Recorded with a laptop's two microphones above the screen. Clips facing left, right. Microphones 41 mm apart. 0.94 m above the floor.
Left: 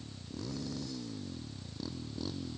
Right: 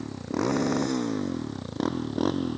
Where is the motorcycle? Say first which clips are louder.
Right 16 dB; 70° right (ahead or behind); by 2.6 s 60° right (ahead or behind).